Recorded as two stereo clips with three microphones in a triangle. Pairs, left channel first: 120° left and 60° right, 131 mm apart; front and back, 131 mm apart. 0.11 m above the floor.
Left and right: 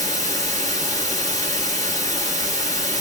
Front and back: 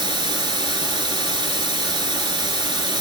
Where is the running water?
160° left, 1.2 m.